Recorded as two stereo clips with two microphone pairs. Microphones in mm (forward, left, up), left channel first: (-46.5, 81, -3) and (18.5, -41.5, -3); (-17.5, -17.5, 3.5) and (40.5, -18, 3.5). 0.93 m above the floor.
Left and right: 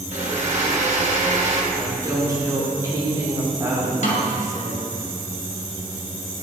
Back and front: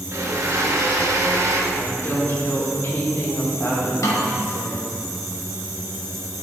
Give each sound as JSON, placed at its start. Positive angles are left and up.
{"t": 0.1, "sound": "a blender", "azimuth_deg": -30, "distance_m": 1.7}
{"t": 1.7, "sound": "a woman speaking", "azimuth_deg": -130, "distance_m": 3.5}
{"t": 4.0, "sound": "a snare drum", "azimuth_deg": 150, "distance_m": 2.0}